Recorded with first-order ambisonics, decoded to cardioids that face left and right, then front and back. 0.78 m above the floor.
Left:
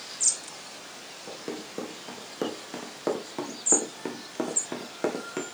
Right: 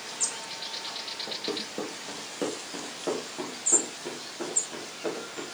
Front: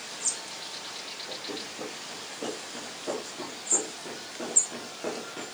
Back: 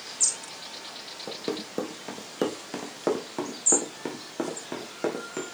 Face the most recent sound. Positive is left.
turn(degrees=120)